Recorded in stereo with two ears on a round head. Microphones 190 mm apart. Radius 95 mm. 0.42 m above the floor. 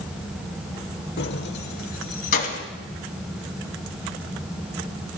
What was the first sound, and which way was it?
Keys jangling, 50° left (ahead or behind).